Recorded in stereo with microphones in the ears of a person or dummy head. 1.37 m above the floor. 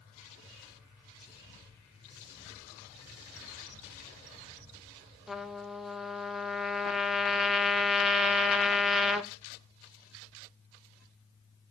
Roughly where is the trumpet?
Centre.